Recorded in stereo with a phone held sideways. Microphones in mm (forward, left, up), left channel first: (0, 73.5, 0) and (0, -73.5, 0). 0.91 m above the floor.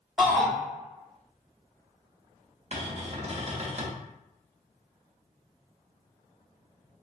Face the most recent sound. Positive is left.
turn(degrees=-45)  # may be behind; listen again after turning